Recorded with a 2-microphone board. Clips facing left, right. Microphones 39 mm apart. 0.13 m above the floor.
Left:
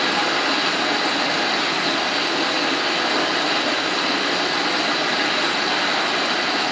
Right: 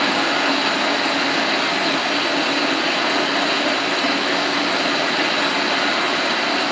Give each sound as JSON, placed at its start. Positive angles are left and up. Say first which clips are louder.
{"t": 0.0, "sound": "running water", "louder": "right 2 dB", "side_deg": -50, "distance_m": 1.0}